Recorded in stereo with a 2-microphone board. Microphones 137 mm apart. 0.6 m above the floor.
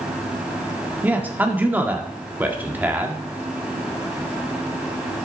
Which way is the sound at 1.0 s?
15° right (ahead or behind).